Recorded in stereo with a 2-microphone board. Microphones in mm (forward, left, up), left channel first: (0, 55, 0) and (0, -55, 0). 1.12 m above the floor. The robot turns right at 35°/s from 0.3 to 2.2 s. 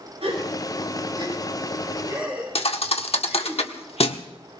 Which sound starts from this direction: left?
A thud, at 2.5 s.